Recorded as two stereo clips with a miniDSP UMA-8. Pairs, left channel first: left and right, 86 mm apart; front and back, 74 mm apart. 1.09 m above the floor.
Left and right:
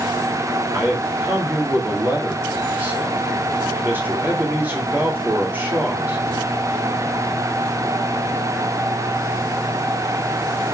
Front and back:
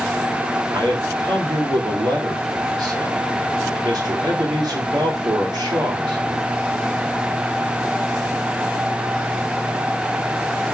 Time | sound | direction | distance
0.7 | a man speaking | 155° right | 3.5 m